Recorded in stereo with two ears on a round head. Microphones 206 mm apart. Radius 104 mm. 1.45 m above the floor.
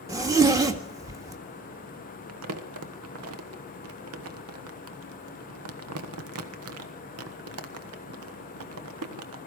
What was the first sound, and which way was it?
A zipper, 15° right (ahead or behind).